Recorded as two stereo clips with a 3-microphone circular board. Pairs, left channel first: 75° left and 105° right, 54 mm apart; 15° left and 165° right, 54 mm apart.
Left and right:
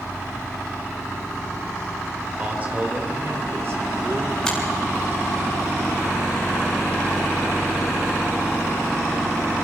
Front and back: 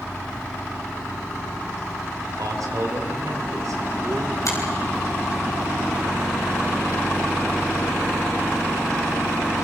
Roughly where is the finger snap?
Ahead.